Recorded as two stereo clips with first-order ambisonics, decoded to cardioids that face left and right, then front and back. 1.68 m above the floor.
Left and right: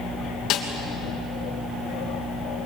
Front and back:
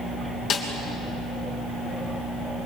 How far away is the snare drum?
About 3 m.